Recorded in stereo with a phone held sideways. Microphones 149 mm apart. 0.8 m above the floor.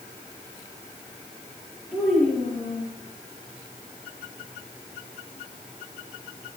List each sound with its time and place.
1.9 s a child speaking: 10° left (ahead or behind), 9 m